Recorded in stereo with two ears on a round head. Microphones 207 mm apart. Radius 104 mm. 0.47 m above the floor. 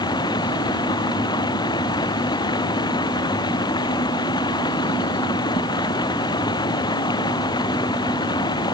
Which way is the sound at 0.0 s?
20° left (ahead or behind).